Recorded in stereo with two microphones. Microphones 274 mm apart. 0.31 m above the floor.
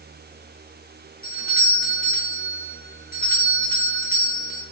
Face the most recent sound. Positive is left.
turn(degrees=35)  # may be behind; listen again after turning